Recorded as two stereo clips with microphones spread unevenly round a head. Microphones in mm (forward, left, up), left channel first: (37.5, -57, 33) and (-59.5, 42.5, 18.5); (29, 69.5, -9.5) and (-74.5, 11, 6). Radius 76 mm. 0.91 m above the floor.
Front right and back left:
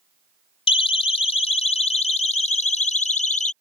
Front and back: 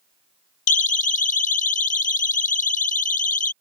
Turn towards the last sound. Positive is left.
turn(degrees=-5)